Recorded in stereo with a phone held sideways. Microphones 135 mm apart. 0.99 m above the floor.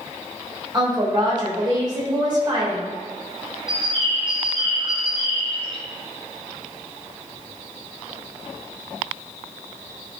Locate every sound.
0.7 s a woman speaking: 35° right (ahead or behind), 3.5 m
3.7 s a bird: 40° right (ahead or behind), 1.5 m